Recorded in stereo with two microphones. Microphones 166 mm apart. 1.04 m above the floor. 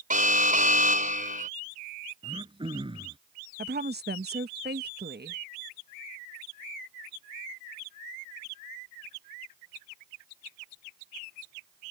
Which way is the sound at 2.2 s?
30° right (ahead or behind).